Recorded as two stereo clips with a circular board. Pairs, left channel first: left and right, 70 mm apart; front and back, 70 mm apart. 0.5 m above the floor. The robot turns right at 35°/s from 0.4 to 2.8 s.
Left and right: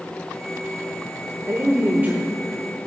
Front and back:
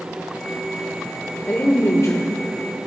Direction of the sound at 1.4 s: 50° right.